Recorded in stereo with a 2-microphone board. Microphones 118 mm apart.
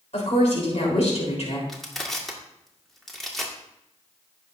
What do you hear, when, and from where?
0.1 s a woman speaking: 65° left (ahead or behind), 3.5 m
1.7 s crushing: centre (ahead or behind), 1.8 m